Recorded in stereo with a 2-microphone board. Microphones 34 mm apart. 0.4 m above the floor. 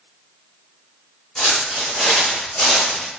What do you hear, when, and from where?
1.4 s footsteps: 15° left (ahead or behind), 1.5 m; by 3.1 s 50° left (ahead or behind), 1.0 m